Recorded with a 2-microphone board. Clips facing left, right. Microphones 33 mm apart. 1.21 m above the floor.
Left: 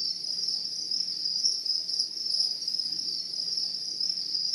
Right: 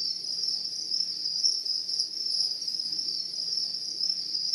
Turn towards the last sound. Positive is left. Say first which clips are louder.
# even
turn(degrees=25)  # may be behind; listen again after turning